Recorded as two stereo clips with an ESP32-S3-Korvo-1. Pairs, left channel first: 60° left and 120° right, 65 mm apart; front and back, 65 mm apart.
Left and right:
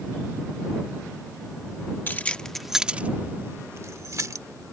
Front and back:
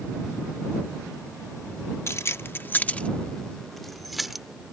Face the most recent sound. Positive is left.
turn(degrees=-95)